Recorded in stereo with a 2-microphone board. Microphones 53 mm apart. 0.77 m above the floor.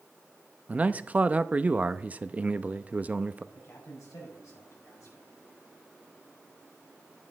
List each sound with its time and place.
0.7 s a man speaking: 30° right (ahead or behind), 0.5 m
3.5 s a man speaking: 75° left (ahead or behind), 6.5 m